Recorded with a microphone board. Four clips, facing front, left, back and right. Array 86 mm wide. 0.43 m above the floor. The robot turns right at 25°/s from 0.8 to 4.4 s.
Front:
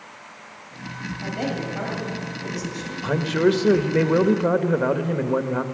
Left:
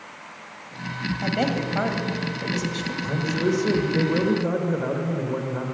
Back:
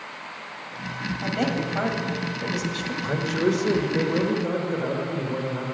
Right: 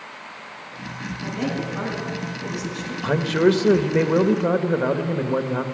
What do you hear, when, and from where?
1.2 s a woman speaking: 100° left, 3 m; by 2.9 s 145° left, 3 m
3.0 s a man speaking: 70° right, 1.1 m; by 5.6 s 35° right, 1.1 m